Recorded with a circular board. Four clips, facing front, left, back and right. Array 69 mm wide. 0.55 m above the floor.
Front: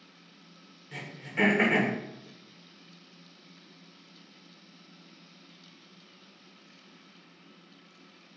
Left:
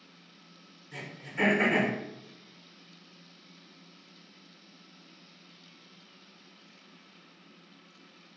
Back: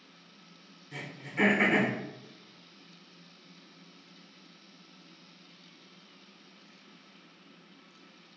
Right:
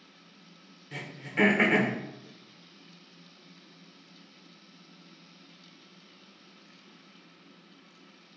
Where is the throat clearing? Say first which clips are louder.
Right 5 dB, front 1 dB; 60° right, 0.9 m.